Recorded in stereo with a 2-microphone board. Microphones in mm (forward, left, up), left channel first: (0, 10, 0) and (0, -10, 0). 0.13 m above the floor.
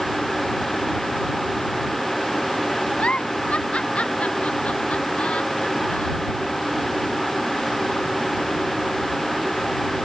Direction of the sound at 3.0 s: 80° left.